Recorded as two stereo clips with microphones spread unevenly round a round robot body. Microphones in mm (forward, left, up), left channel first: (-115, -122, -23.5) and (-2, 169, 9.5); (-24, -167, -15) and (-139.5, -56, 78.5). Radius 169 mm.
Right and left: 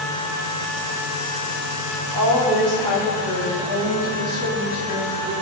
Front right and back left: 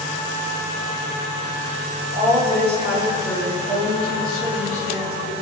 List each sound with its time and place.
2.1 s a woman speaking: 35° left, 2.5 m; by 5.3 s 15° right, 4.5 m